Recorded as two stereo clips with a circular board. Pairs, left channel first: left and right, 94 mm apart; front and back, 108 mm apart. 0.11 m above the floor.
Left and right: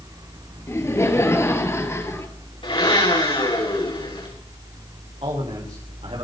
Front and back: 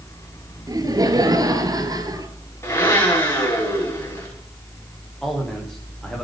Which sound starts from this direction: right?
A man speaking, at 5.2 s.